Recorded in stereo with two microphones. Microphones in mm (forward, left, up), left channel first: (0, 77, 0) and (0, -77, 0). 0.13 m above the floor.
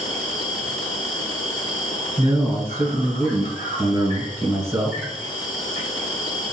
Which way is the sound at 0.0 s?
55° left (ahead or behind).